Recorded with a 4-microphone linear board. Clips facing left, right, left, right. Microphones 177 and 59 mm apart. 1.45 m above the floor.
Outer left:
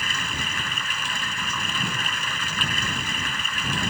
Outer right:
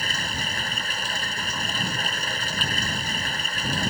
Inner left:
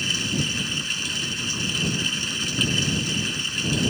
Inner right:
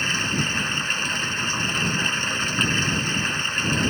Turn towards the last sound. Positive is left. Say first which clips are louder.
# outer right 1 dB, inner right 2 dB
turn(degrees=-40)  # may be behind; listen again after turning